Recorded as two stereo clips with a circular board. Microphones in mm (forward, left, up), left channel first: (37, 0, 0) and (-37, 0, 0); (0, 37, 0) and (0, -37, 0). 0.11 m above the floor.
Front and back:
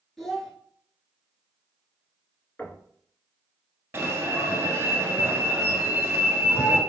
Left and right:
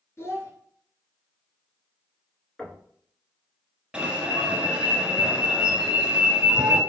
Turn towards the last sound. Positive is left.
turn(degrees=-160)